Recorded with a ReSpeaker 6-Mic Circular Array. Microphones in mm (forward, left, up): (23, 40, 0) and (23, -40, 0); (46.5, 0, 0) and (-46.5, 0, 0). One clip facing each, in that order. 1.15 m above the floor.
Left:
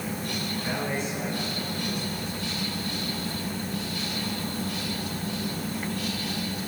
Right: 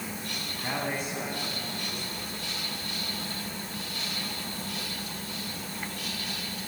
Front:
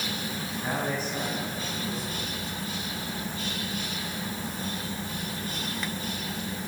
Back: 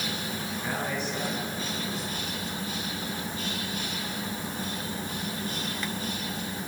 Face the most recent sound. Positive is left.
turn(degrees=-45)